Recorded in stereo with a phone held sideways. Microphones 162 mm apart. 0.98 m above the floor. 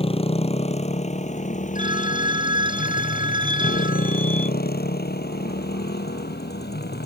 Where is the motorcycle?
35° left (ahead or behind); by 7.1 s 85° left.